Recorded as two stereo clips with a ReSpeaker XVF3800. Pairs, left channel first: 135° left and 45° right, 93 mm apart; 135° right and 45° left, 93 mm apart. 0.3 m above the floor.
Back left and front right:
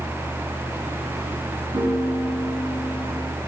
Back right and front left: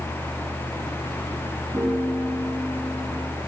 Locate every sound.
1.7 s a piano: 5° right, 4 m